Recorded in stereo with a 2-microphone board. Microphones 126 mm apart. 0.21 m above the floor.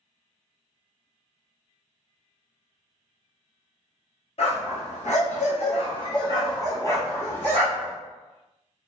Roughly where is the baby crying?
No baby crying in this recording.